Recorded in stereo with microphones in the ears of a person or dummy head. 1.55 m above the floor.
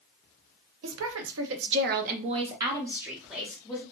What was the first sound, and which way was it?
A woman speaking, 85° right.